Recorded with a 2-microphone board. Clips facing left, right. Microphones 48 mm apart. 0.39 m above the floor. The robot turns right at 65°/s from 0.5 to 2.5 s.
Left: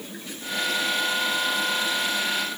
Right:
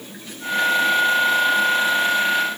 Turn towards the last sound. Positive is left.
No sound to turn to.